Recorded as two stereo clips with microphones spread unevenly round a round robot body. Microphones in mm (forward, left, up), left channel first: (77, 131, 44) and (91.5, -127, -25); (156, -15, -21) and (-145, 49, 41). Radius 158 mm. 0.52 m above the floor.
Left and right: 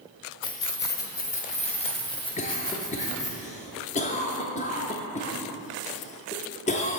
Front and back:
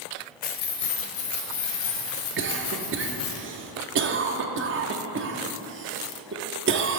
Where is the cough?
160° left, 0.7 m.